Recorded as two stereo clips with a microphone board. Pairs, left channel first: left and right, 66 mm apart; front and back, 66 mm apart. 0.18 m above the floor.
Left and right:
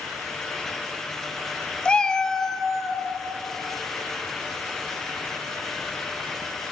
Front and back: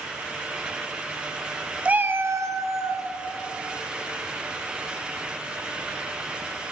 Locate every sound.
1.9 s a cat meowing: 140° left, 0.5 m; by 3.1 s straight behind, 1.3 m